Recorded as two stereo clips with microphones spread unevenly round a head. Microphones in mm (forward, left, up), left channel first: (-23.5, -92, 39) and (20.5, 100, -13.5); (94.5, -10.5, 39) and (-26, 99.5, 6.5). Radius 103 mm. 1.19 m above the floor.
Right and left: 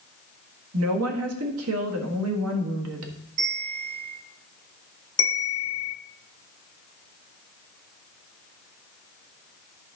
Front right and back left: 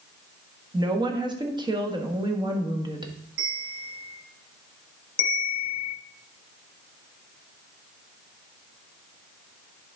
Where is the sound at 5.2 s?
65° right, 0.8 m.